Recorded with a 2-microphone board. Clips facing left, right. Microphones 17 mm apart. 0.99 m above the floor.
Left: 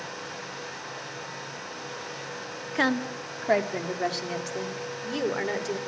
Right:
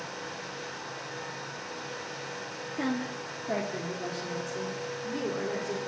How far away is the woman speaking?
About 1.5 m.